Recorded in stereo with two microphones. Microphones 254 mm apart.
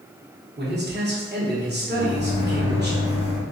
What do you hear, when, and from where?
0.6 s a man speaking: 40° right (ahead or behind), 1.0 m
1.9 s a microwave: 20° left (ahead or behind), 1.6 m